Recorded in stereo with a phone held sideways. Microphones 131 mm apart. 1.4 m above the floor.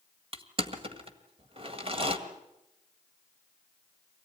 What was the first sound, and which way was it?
Crushing, 45° right (ahead or behind).